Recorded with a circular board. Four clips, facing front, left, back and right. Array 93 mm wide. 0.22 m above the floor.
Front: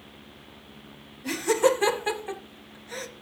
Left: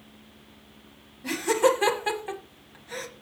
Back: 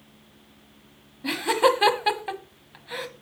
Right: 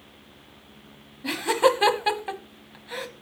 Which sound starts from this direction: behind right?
Laughter, at 1.2 s.